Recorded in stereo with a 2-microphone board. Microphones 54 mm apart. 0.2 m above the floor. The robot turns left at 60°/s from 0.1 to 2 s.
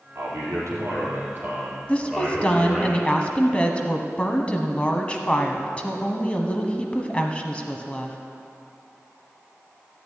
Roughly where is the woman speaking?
Left.